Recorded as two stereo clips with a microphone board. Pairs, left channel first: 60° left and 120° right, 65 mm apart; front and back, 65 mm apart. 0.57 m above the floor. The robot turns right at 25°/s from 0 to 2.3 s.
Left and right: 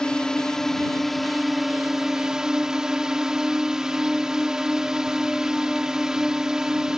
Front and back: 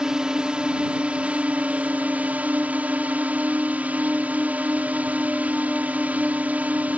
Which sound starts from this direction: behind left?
A drone, at 0.0 s.